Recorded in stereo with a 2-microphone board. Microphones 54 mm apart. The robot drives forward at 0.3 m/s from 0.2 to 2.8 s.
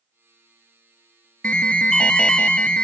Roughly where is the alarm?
Left.